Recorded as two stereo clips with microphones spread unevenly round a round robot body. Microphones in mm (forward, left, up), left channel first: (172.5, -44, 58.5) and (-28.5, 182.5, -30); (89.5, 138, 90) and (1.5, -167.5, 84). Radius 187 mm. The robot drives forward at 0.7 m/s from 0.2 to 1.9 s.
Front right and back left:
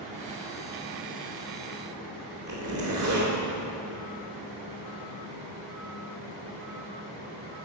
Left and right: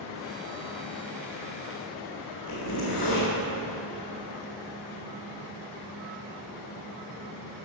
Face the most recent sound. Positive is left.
turn(degrees=115)